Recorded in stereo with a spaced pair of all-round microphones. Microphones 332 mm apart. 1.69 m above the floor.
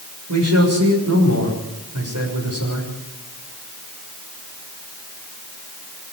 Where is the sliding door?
I don't hear a sliding door.